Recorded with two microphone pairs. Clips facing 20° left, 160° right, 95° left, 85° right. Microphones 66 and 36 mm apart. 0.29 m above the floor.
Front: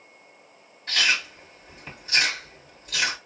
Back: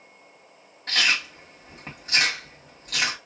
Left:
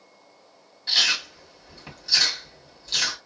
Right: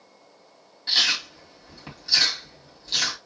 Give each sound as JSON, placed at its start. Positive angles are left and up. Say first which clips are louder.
{"t": 0.9, "sound": "chewing", "louder": "even, even", "azimuth_deg": -170, "distance_m": 2.0}